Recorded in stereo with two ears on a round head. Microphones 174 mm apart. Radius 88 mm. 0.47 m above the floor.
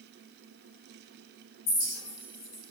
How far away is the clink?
About 1.8 m.